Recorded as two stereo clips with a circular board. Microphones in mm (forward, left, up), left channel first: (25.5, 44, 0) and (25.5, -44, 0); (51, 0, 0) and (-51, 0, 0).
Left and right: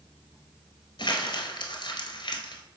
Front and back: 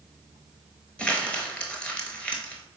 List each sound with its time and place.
1.0 s crumpling: 75° left, 0.8 m